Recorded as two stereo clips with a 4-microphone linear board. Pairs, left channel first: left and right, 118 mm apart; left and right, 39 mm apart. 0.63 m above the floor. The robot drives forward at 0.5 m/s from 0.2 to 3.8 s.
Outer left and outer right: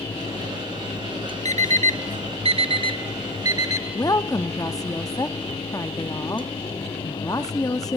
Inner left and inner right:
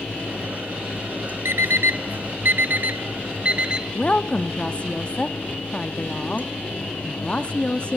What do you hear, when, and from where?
1.4 s an alarm clock: 75° right (ahead or behind), 0.6 m; by 3.8 s 30° right (ahead or behind), 1.2 m
3.9 s a woman speaking: 30° left (ahead or behind), 0.7 m